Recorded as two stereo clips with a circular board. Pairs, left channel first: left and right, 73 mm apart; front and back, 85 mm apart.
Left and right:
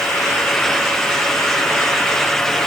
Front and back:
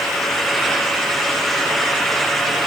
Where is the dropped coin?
I don't hear a dropped coin.